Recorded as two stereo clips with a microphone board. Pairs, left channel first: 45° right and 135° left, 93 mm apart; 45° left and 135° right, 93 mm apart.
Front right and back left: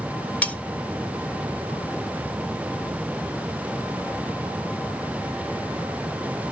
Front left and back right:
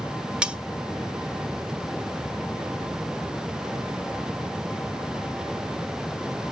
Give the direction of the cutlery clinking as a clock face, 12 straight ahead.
3 o'clock.